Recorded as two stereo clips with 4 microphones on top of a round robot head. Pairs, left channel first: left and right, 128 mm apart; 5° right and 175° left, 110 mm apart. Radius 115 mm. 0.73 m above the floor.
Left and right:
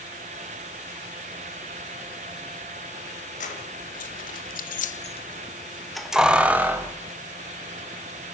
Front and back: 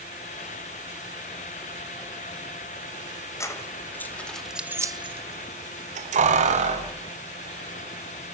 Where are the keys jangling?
55° left, 2.5 m; by 6.9 s 165° right, 3 m.